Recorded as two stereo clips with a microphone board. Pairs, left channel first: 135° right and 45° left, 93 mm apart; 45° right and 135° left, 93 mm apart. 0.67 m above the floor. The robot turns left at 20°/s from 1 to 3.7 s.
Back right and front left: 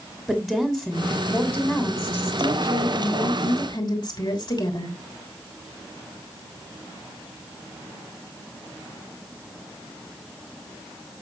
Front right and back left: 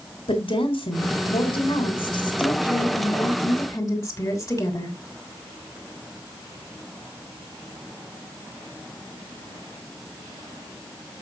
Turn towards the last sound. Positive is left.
turn(degrees=-100)